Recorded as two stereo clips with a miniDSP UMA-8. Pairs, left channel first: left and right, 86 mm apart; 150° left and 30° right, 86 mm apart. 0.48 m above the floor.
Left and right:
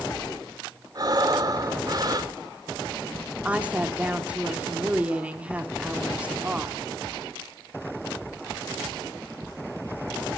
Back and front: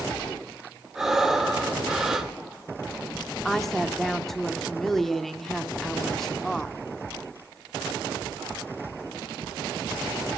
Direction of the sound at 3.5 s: 130° right.